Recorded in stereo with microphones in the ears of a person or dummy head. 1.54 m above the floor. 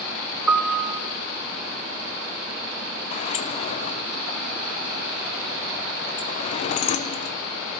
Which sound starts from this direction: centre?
A piano, at 0.5 s.